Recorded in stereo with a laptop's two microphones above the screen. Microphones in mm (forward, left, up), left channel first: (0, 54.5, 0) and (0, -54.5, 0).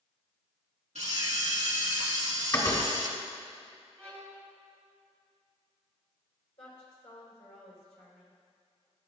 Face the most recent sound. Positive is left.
turn(degrees=70)  # may be behind; listen again after turning